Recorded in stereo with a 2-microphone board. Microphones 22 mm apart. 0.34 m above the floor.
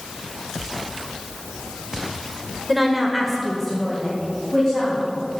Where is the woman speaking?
5° right (ahead or behind), 1.3 m; by 5.0 s 15° left (ahead or behind), 3 m.